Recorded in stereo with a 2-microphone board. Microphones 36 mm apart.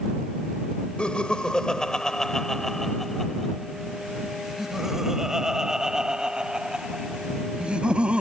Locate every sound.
1.0 s laughter: 30° left (ahead or behind); by 8.2 s 25° right (ahead or behind)